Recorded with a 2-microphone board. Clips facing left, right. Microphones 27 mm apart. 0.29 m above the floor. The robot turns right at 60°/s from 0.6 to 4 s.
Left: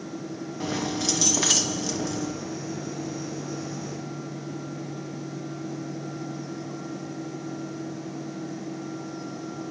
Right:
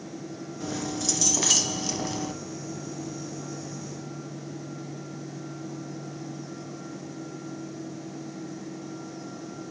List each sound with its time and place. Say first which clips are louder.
0.6 s keys jangling: left 3 dB; 120° left, 1.8 m; by 2.3 s 135° right, 1.8 m